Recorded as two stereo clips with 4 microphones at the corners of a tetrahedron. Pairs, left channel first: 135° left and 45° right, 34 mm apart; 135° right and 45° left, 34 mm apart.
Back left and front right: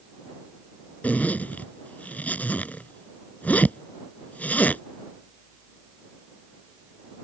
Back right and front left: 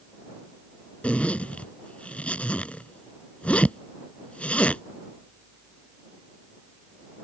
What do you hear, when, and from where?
1.0 s a zipper: 175° left